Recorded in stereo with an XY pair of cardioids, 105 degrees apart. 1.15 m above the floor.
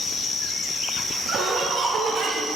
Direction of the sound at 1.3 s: 65° right.